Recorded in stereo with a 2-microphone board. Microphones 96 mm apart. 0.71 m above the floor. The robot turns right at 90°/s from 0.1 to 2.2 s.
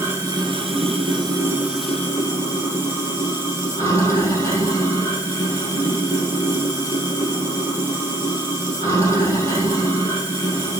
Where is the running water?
155° right, 3 m; by 10.8 s 35° left, 3 m.